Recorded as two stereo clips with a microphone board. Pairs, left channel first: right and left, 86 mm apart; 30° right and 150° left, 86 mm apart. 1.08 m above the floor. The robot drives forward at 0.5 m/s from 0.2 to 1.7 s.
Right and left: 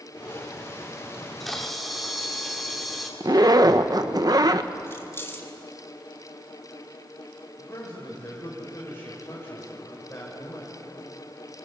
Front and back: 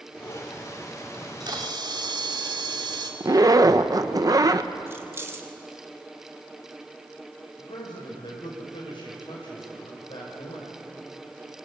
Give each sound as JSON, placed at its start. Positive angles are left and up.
{"t": 1.1, "sound": "a camera shutter", "azimuth_deg": -175, "distance_m": 2.0}
{"t": 3.2, "sound": "a zipper", "azimuth_deg": 115, "distance_m": 0.9}
{"t": 4.9, "sound": "keys jangling", "azimuth_deg": -150, "distance_m": 2.0}
{"t": 7.6, "sound": "a man speaking", "azimuth_deg": -30, "distance_m": 5.5}